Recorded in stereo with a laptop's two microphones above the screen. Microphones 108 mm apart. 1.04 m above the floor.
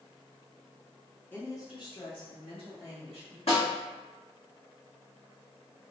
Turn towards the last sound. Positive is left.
turn(degrees=80)